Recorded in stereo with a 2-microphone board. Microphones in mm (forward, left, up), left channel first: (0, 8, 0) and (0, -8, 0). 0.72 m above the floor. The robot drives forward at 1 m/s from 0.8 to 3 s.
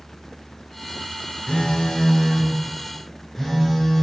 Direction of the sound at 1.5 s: 80° left.